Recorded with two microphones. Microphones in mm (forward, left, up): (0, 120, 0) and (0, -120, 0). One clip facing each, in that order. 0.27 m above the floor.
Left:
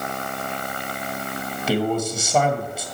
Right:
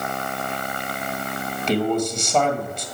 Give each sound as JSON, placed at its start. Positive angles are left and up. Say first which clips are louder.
{"t": 1.7, "sound": "a man speaking", "louder": "right 1 dB", "side_deg": 5, "distance_m": 1.5}